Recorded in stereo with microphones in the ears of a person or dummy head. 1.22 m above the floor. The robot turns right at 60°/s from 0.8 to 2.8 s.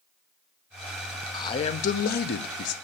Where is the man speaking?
30° left, 0.6 m; by 2.8 s 115° left, 0.6 m.